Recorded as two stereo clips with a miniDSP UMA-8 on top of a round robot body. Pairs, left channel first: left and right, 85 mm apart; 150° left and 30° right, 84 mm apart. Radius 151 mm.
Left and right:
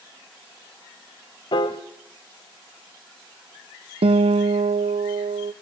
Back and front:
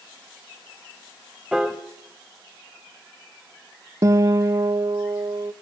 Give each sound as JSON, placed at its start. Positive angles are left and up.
{"t": 1.5, "sound": "a piano", "azimuth_deg": 55, "distance_m": 0.8}
{"t": 4.0, "sound": "a guitar", "azimuth_deg": -85, "distance_m": 0.6}